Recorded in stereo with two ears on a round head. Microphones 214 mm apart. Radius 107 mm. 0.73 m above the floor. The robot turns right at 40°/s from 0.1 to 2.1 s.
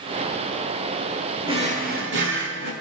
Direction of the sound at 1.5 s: 20° right (ahead or behind).